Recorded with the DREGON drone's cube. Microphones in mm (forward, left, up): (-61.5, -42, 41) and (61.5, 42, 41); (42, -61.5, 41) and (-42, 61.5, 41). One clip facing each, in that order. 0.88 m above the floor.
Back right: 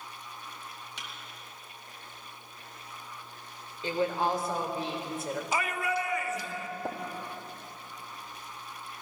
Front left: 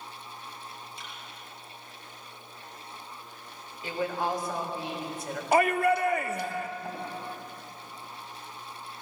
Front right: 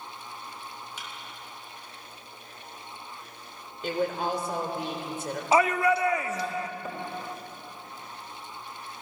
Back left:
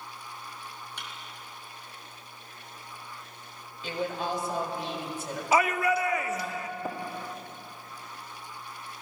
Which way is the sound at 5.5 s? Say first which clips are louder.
Front left 10 dB, front right 2 dB; 5° left.